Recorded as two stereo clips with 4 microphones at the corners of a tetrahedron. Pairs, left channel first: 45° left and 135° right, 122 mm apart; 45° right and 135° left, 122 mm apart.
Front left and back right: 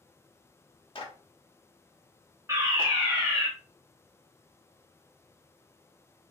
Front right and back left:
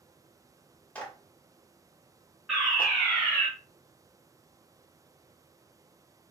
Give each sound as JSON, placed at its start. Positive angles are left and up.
{"t": 0.9, "sound": "a clap", "azimuth_deg": 30, "distance_m": 1.0}
{"t": 2.5, "sound": "a fire alarm", "azimuth_deg": -145, "distance_m": 1.8}